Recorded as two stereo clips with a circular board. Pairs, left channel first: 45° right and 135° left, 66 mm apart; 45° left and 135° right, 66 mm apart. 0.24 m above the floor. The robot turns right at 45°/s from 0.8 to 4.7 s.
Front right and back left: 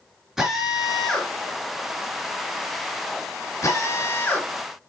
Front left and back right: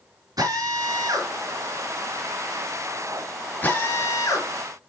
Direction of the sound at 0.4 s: 145° right.